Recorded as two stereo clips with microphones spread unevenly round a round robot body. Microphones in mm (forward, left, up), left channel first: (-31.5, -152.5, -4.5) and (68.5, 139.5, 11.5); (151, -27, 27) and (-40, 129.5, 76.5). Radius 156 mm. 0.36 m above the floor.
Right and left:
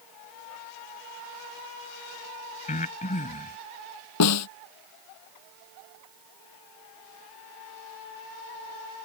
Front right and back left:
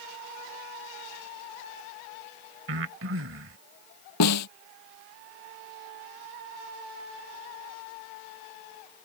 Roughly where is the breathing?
Behind.